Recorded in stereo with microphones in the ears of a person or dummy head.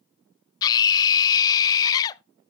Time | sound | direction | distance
0.6 | a scream | 20° left (ahead or behind) | 0.5 m